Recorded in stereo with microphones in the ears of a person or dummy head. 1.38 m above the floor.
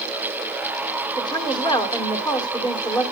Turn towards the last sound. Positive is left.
turn(degrees=20)  # may be behind; listen again after turning